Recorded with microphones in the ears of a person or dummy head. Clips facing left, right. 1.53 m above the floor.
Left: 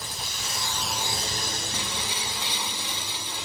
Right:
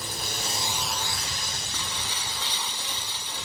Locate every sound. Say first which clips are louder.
0.0 s a drone: right 4 dB; 55° right (ahead or behind); by 3.5 s 75° left (ahead or behind)
1.7 s breaking glass: left 3 dB; 15° left (ahead or behind)